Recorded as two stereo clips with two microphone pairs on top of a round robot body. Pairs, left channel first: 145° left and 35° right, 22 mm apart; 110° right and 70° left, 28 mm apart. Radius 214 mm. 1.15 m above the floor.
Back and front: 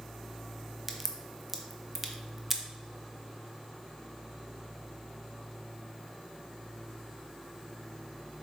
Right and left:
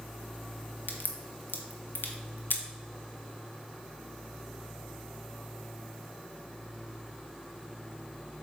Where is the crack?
110° right, 0.8 m.